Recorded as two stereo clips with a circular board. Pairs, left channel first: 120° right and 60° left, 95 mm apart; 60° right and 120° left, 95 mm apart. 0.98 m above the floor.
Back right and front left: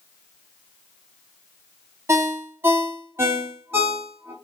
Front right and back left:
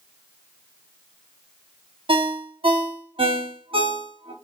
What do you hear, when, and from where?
2.1 s a ringtone: 125° left, 0.9 m